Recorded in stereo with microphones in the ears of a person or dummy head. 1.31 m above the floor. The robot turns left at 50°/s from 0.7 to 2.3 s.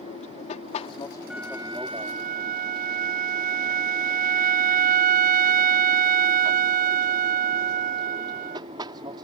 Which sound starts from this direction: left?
An aircraft, at 0.0 s.